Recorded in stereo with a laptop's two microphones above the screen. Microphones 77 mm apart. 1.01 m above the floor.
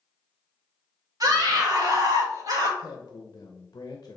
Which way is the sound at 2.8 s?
45° left (ahead or behind).